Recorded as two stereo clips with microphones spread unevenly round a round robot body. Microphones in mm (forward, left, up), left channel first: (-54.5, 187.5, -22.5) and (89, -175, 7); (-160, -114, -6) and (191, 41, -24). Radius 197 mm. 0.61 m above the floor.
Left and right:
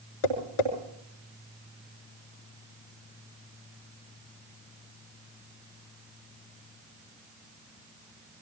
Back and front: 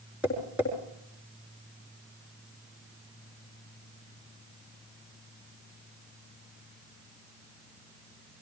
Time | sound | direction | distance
0.2 | tapping | 110° left | 5.5 m